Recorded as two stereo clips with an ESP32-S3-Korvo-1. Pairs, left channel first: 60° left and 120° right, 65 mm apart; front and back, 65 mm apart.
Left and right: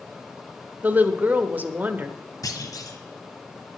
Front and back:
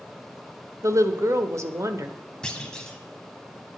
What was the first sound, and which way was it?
A woman speaking, 175° right.